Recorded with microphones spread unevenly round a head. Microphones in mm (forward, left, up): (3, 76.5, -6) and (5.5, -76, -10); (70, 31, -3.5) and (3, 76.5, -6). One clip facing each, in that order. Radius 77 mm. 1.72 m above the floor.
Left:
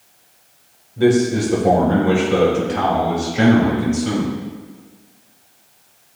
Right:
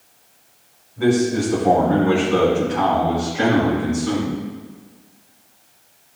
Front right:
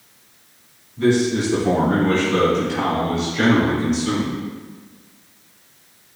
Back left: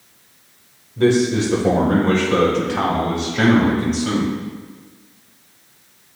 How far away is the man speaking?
About 1.7 m.